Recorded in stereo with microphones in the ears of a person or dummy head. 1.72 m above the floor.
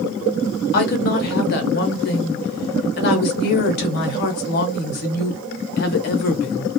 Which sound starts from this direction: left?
A woman speaking, at 0.7 s.